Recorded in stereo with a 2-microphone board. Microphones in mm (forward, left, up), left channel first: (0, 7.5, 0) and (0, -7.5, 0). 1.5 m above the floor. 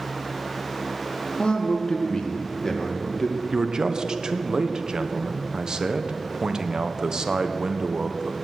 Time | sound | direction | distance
1.4 | a man speaking | 60° left (ahead or behind) | 1.8 m
3.5 | a man speaking | 45° right (ahead or behind) | 1.0 m